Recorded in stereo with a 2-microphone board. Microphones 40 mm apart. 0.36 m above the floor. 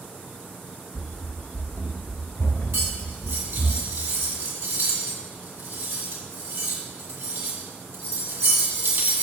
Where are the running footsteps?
25° left (ahead or behind), 0.7 m; by 3.7 s 80° left, 2.0 m.